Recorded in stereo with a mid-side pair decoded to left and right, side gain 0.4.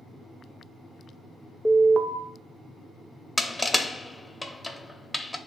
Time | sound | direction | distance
1.6 | an alarm | 15° right | 0.6 m
3.4 | crushing | 5° left | 0.7 m